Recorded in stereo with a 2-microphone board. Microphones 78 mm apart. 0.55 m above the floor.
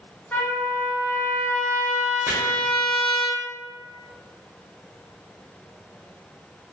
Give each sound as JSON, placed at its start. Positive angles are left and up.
{"t": 0.3, "sound": "a trumpet", "side_deg": 25, "distance_m": 0.8}
{"t": 2.3, "sound": "chopping", "side_deg": -25, "distance_m": 0.8}